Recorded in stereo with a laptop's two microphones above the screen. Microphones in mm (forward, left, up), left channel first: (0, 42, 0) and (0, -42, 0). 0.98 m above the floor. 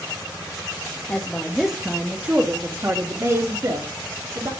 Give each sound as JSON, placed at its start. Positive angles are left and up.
{"t": 1.1, "sound": "a woman speaking", "side_deg": 15, "distance_m": 1.1}